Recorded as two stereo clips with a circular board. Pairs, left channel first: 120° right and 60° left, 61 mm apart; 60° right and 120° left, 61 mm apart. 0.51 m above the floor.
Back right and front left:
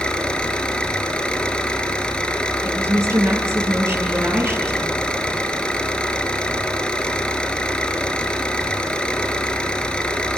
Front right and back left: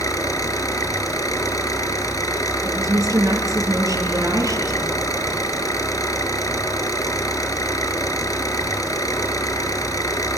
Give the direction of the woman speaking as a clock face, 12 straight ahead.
9 o'clock.